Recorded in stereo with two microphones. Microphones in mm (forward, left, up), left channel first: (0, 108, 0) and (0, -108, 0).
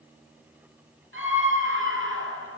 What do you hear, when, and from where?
1.1 s a scream: 75° right (ahead or behind), 4.5 m